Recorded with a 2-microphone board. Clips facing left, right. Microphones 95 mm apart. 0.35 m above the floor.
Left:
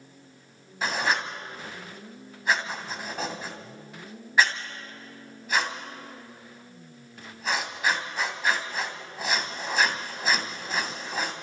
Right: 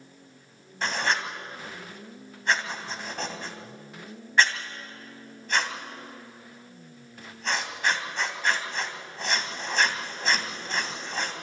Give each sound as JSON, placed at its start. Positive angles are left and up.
{"t": 0.8, "sound": "writing", "side_deg": 5, "distance_m": 2.5}